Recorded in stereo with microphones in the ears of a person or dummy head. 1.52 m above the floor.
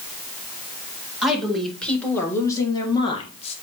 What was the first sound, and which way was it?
A woman speaking, centre (ahead or behind).